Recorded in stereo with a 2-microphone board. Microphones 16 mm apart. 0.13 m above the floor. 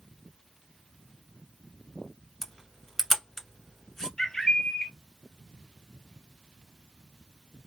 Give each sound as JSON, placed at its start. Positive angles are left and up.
{"t": 2.4, "sound": "a camera shutter", "side_deg": 25, "distance_m": 1.2}
{"t": 4.2, "sound": "a bird", "side_deg": 45, "distance_m": 0.7}